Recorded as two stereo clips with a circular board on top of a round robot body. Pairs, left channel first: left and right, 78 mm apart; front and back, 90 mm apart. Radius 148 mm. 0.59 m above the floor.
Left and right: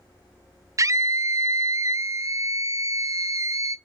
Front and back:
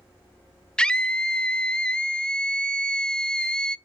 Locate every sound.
0.8 s a scream: 75° right, 0.8 m